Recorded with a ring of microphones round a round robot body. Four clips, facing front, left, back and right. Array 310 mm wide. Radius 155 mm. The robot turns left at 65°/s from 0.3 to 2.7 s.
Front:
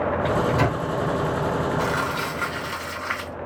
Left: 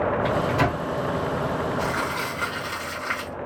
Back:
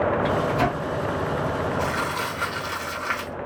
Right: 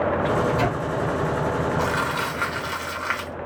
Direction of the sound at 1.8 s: 55° right.